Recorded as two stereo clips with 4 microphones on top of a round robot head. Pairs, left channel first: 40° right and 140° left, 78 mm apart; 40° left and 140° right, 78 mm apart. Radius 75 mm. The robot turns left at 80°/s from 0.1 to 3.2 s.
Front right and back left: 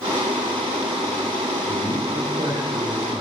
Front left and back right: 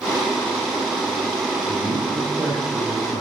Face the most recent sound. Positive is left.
turn(degrees=55)